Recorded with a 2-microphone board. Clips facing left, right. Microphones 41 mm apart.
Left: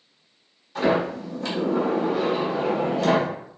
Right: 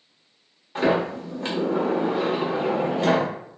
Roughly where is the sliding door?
Right.